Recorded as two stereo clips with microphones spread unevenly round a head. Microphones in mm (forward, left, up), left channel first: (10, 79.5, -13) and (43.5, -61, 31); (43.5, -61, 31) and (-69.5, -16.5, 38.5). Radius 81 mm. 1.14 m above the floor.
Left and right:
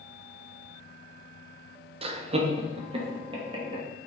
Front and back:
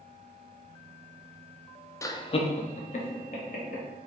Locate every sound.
2.0 s laughter: 35° right, 0.5 m; by 3.8 s 15° right, 2 m